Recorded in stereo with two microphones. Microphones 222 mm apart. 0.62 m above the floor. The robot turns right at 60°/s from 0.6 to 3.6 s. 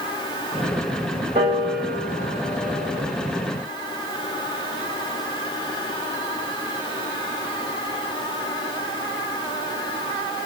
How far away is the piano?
About 2.5 m.